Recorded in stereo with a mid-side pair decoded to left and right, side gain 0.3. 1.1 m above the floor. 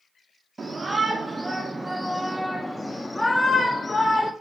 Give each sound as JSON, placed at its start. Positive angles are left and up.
{"t": 0.6, "sound": "a shout", "azimuth_deg": -45, "distance_m": 1.9}